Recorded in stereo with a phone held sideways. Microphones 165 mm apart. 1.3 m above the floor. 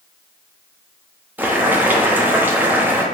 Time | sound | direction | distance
1.4 | boiling | 10° right (ahead or behind) | 0.6 m